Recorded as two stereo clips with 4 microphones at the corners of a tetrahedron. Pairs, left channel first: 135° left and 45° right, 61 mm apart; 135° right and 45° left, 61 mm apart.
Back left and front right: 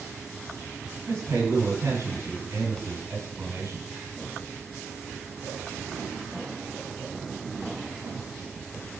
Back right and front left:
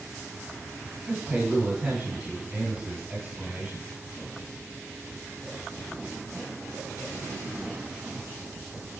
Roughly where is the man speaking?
Ahead.